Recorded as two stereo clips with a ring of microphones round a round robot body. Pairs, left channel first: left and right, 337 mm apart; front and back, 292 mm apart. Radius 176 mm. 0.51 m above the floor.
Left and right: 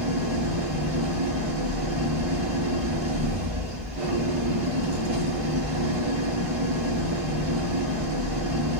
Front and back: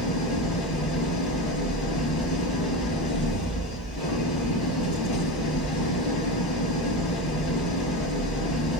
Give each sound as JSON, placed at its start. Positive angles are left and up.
{"t": 0.0, "sound": "an engine running", "azimuth_deg": -40, "distance_m": 8.0}